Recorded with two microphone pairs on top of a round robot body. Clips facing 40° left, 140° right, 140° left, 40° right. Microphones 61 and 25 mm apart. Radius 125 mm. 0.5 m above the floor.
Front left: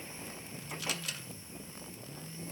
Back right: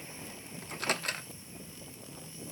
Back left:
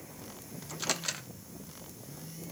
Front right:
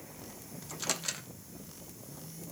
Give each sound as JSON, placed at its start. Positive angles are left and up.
{"t": 0.6, "sound": "a microwave", "azimuth_deg": -145, "distance_m": 0.9}